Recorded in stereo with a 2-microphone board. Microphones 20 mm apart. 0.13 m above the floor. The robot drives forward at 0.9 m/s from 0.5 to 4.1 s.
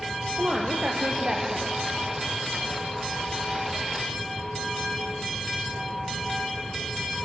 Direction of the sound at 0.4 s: 60° right (ahead or behind).